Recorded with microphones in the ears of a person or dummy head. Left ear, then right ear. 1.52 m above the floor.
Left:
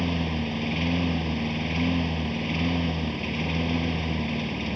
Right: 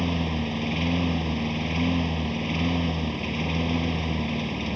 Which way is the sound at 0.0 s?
Centre (ahead or behind).